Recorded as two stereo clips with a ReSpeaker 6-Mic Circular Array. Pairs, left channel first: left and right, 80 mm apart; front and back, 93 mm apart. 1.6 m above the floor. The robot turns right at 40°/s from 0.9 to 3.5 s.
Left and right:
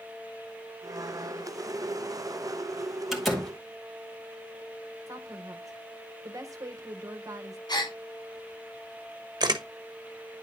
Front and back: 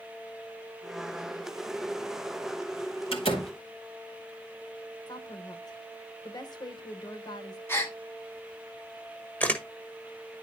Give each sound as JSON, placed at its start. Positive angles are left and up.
{"t": 3.1, "sound": "a door slam", "azimuth_deg": 0, "distance_m": 2.5}
{"t": 5.1, "sound": "a woman speaking", "azimuth_deg": -45, "distance_m": 1.4}
{"t": 7.7, "sound": "a gasp", "azimuth_deg": 65, "distance_m": 2.0}
{"t": 9.4, "sound": "a camera shutter", "azimuth_deg": -70, "distance_m": 1.2}